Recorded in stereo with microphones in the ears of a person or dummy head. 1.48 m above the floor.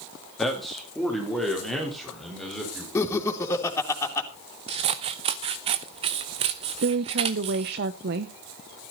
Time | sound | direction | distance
0.4 | a man speaking | 5° left (ahead or behind) | 3 m
3.0 | laughter | 15° left (ahead or behind) | 3 m
4.7 | scissors | 30° right (ahead or behind) | 0.8 m
6.8 | a woman speaking | 55° right (ahead or behind) | 0.9 m